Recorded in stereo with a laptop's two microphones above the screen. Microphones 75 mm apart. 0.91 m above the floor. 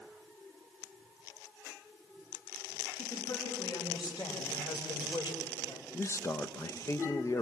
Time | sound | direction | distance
3.0 | a woman speaking | 65° left (ahead or behind) | 4.5 m
5.9 | a man speaking | 40° left (ahead or behind) | 0.7 m